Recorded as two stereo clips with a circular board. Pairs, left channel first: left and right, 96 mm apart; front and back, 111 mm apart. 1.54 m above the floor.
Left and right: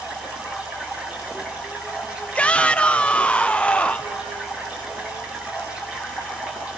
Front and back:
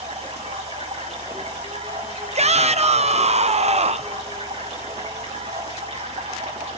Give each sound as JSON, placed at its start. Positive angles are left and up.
{"t": 0.0, "sound": "running water", "azimuth_deg": -170, "distance_m": 7.0}
{"t": 2.4, "sound": "a shout", "azimuth_deg": 165, "distance_m": 0.9}